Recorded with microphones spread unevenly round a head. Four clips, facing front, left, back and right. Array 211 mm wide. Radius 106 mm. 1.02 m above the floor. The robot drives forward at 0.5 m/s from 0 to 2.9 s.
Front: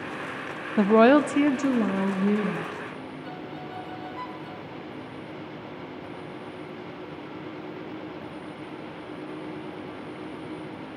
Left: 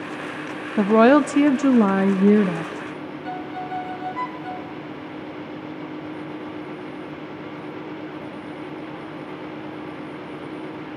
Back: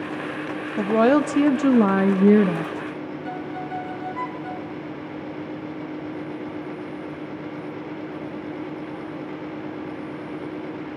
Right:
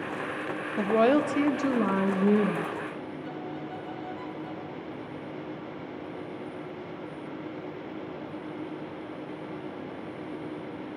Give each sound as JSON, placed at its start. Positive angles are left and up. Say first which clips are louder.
{"t": 0.8, "sound": "a woman speaking", "louder": "left 8 dB, front 1 dB", "azimuth_deg": 60, "distance_m": 0.7}
{"t": 3.2, "sound": "a violin", "louder": "left 7 dB, back 7 dB", "azimuth_deg": 120, "distance_m": 1.1}